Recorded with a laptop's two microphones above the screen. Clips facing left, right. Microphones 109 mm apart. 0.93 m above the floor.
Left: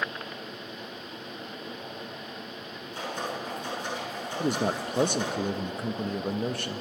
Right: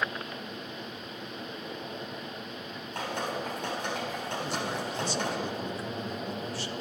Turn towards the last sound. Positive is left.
turn(degrees=55)  # may be behind; listen again after turning